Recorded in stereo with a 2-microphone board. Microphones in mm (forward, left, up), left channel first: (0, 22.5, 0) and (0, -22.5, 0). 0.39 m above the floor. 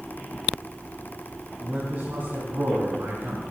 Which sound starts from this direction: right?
A man speaking, at 1.6 s.